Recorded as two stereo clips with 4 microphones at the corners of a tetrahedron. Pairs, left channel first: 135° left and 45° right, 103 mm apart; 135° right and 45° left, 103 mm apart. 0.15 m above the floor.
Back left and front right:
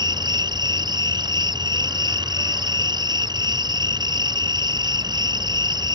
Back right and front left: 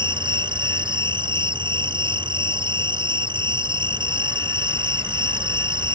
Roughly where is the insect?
Ahead.